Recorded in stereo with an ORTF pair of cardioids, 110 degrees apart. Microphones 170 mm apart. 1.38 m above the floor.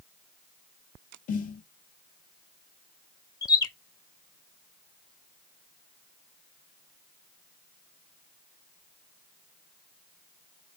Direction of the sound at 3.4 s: 25° left.